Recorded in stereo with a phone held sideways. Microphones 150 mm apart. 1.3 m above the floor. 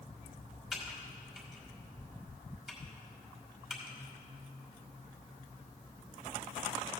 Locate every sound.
0.7 s typing on a keyboard: 5° right (ahead or behind), 2.5 m